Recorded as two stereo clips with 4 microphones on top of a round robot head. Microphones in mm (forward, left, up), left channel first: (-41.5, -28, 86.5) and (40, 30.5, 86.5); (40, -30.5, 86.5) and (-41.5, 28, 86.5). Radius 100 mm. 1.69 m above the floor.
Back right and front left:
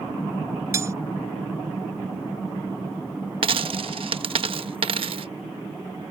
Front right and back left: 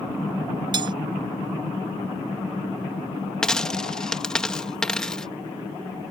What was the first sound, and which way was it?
Cutlery clinking, 100° left.